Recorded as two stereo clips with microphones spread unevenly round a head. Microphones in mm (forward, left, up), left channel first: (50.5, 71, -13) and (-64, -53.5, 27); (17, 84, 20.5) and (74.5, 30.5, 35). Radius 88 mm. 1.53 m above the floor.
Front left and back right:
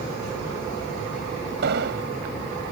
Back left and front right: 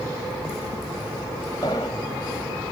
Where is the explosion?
155° right.